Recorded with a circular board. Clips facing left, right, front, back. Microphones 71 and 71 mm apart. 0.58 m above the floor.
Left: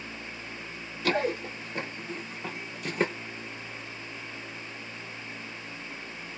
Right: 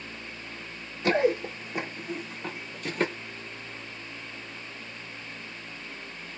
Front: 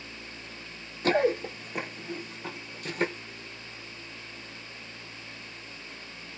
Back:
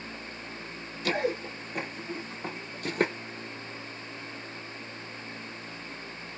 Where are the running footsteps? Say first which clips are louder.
Right 4 dB, front 5 dB; 30° right, 0.8 m; by 3.1 s 170° left, 1.0 m.